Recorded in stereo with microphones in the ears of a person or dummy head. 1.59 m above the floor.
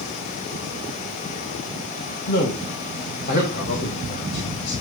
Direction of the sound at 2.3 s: 45° left (ahead or behind).